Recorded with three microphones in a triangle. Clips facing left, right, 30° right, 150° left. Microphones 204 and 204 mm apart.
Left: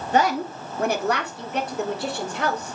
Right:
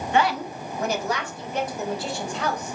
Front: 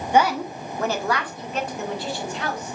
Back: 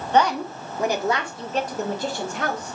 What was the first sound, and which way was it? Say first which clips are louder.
A woman speaking: left 2 dB, even; 45° left.